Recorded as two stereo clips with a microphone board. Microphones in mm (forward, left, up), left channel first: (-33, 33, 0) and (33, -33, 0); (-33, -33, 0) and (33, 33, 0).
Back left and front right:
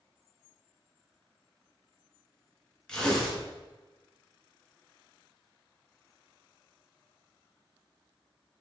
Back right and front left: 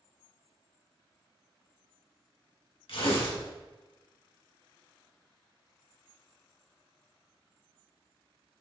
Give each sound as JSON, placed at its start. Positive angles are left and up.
{"t": 2.9, "sound": "tearing paper", "azimuth_deg": -145, "distance_m": 2.5}